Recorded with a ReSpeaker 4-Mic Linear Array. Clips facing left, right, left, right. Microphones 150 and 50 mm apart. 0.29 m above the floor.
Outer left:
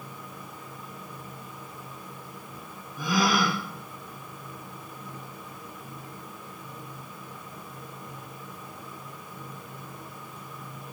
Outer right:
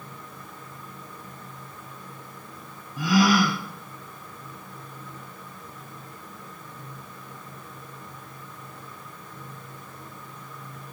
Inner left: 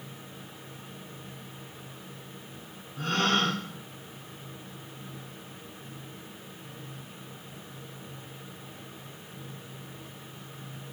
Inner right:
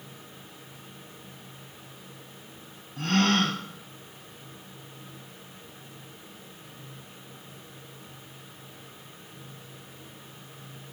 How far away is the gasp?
About 4.5 m.